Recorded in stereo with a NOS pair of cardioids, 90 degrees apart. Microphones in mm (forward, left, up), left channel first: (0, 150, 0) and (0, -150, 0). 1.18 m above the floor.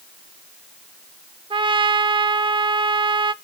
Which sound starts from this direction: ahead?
A trumpet, at 1.5 s.